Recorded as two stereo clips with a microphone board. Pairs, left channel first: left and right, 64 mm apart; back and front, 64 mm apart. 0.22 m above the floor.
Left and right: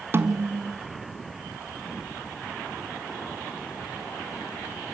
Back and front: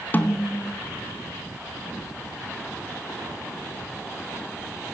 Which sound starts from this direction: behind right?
A snare drum, at 0.1 s.